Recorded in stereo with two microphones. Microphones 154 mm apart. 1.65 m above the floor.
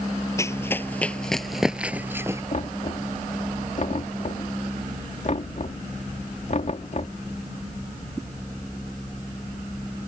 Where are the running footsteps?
20° left (ahead or behind); by 2.4 s 20° right (ahead or behind).